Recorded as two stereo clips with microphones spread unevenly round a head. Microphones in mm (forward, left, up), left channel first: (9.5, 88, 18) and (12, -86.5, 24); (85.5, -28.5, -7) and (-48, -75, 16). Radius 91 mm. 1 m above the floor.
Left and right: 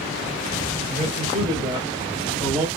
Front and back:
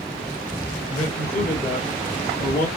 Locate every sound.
0.9 s a man speaking: 30° right, 3 m; by 2.7 s 5° right, 2.0 m